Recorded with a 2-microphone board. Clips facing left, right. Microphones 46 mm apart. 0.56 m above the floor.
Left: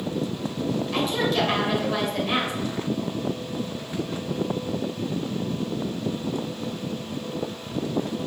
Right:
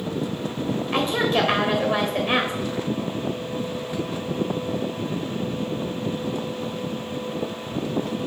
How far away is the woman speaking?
About 1.8 m.